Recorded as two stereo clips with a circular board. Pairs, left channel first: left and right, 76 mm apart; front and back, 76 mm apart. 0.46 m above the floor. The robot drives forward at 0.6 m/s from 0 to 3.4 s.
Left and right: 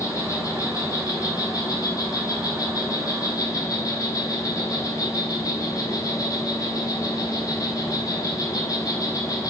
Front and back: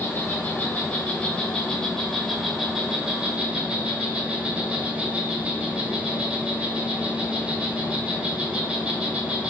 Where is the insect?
55° left, 3 m; by 9.5 s 105° left, 2.5 m.